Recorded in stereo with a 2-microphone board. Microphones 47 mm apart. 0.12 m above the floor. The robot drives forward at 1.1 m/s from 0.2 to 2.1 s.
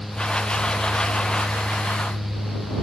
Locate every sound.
Only background noise.